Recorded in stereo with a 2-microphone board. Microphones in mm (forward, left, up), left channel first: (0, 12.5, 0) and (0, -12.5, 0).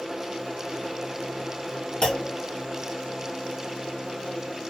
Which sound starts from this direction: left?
A clunk, at 2.0 s.